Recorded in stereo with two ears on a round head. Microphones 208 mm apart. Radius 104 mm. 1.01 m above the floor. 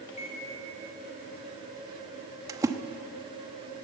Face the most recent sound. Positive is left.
turn(degrees=-15)  # may be behind; listen again after turning